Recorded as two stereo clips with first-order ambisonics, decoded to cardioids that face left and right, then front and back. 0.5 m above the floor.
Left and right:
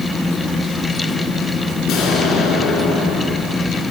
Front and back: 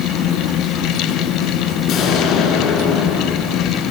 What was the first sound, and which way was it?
An explosion, 50° left.